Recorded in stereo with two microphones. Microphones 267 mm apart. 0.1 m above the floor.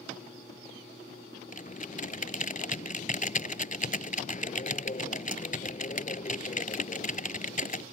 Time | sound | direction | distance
1.5 | typing on a keyboard | 30° left (ahead or behind) | ?